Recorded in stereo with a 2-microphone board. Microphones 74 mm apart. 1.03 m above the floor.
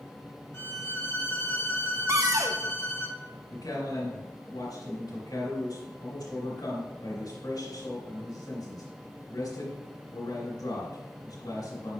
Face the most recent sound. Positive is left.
turn(degrees=65)  # may be behind; listen again after turning